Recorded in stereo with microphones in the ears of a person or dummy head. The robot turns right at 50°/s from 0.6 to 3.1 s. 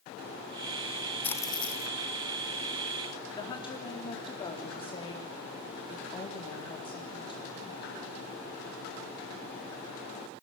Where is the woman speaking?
25° left (ahead or behind), 4 m.